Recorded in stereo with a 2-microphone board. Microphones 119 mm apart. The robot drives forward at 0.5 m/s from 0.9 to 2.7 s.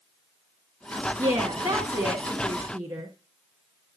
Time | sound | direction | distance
1.2 | a woman speaking | 25° right (ahead or behind) | 1.2 m